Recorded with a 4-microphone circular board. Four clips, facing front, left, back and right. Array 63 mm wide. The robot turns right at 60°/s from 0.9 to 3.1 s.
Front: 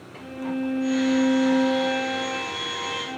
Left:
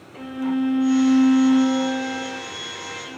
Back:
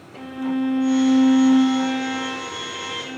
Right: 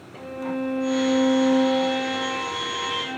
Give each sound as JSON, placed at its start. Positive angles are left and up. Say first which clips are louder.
{"t": 0.2, "sound": "a violin", "louder": "left 5 dB, back 5 dB", "azimuth_deg": 130, "distance_m": 1.4}